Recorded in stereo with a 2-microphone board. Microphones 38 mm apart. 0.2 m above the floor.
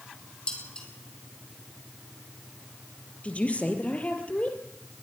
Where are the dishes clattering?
25° left (ahead or behind), 5 m.